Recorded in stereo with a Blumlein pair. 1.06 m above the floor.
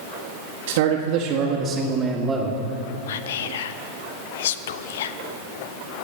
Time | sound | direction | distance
0.7 | a man speaking | 55° right | 1.8 m
3.1 | whispering | 55° left | 0.7 m